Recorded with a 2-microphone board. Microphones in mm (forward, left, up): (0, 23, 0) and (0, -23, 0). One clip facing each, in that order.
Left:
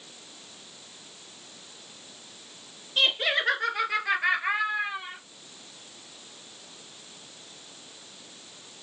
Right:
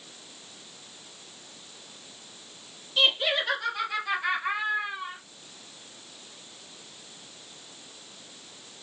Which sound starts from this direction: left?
Laughter, at 3.0 s.